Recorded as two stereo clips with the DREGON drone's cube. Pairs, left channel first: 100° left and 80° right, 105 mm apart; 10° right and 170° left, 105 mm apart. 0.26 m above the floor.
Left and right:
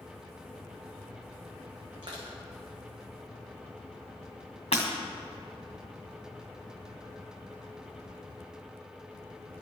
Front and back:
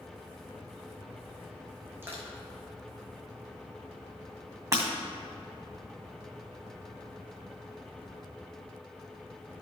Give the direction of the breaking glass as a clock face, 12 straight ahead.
8 o'clock.